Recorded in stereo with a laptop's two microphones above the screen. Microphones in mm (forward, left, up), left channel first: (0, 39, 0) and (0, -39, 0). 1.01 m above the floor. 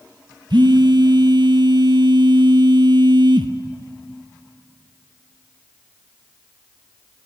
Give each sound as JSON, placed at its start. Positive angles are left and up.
{"t": 0.5, "sound": "a phone buzzing", "side_deg": -70, "distance_m": 1.1}